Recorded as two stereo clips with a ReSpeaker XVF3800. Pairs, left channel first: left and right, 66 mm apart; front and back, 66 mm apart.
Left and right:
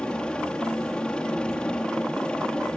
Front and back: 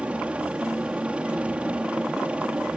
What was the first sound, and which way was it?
A helicopter, 140° left.